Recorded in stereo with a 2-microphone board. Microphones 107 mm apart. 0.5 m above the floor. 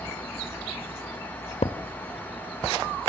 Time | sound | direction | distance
1.6 | a thud | 75° left (ahead or behind) | 0.7 m